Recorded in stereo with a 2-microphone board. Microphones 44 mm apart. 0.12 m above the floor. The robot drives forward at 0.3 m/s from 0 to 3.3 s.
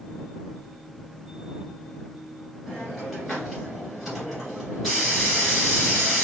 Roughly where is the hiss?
Centre.